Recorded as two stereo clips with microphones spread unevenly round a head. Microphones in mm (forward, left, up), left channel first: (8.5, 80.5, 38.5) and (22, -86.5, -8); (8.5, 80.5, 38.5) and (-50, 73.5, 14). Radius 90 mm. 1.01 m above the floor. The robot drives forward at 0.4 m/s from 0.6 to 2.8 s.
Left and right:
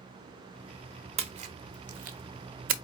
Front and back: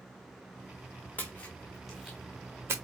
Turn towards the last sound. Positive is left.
turn(degrees=-105)